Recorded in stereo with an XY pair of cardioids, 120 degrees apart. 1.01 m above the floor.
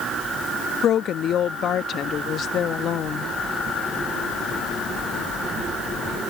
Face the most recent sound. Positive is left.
turn(degrees=55)